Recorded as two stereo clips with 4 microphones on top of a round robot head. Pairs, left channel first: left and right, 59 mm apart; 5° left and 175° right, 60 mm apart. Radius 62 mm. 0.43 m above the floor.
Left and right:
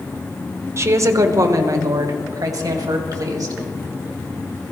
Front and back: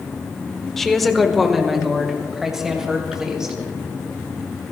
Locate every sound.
0.8 s a woman speaking: 80° right, 1.1 m; by 3.5 s 100° right, 2.5 m